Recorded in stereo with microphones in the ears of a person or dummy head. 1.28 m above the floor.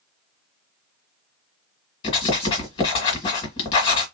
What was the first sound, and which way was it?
Writing, 30° left (ahead or behind).